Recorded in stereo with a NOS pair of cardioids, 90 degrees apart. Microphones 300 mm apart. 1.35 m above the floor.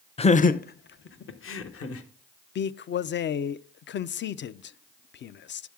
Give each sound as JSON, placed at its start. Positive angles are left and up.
{"t": 0.2, "sound": "laughter", "azimuth_deg": 20, "distance_m": 0.7}
{"t": 2.5, "sound": "a man speaking", "azimuth_deg": 45, "distance_m": 0.5}